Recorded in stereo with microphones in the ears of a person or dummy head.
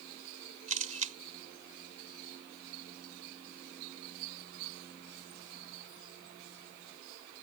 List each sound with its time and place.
0.7 s a camera shutter: 40° right (ahead or behind)